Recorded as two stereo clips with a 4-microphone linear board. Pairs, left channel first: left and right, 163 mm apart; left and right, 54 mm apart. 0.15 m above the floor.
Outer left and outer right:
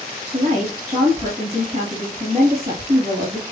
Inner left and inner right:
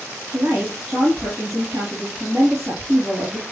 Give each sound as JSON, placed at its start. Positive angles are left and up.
{"t": 0.3, "sound": "a woman speaking", "side_deg": -40, "distance_m": 3.5}